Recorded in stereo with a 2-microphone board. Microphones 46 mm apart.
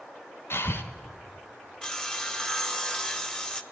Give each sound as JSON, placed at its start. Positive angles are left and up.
{"t": 0.5, "sound": "breathing", "side_deg": 55, "distance_m": 1.1}
{"t": 1.8, "sound": "sawing", "side_deg": 15, "distance_m": 0.9}